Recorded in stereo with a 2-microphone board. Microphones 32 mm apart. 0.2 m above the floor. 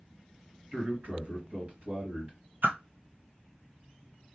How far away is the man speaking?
About 3 m.